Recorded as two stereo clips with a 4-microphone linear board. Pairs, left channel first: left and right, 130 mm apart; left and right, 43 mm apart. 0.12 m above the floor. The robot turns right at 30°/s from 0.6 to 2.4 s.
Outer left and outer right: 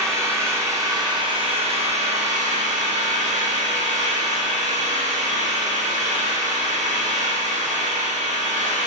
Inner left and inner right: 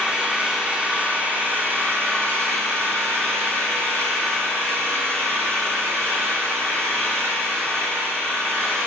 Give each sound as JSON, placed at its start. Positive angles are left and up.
{"t": 0.0, "sound": "an engine running", "azimuth_deg": -155, "distance_m": 1.8}